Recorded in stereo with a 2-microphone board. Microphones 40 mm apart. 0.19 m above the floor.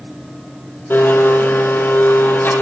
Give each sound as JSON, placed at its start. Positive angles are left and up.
{"t": 0.9, "sound": "a blender", "side_deg": 55, "distance_m": 6.5}